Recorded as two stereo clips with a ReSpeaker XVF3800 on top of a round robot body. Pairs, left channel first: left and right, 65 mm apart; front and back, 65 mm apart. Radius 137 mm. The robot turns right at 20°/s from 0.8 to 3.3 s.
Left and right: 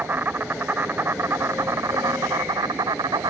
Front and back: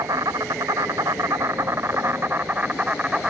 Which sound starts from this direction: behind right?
An insect, at 0.0 s.